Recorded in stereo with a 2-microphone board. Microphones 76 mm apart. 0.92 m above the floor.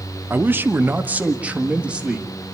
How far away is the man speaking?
About 0.8 m.